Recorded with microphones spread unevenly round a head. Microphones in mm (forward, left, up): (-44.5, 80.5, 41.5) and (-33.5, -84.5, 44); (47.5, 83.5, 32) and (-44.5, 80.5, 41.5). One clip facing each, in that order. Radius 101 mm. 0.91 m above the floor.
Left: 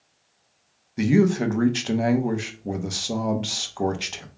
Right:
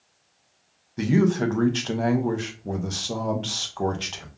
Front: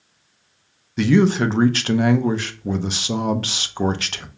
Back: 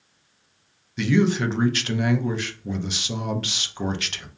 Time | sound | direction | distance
1.0 | a man speaking | 20° left | 0.6 m